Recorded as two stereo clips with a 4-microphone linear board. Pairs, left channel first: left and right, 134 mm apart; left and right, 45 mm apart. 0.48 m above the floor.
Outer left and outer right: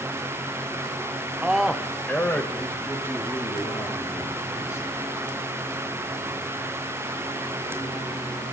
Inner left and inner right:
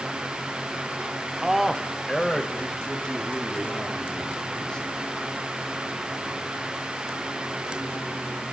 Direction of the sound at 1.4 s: 10° right (ahead or behind).